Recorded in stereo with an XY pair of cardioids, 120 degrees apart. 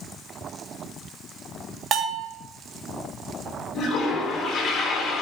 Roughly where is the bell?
Ahead right.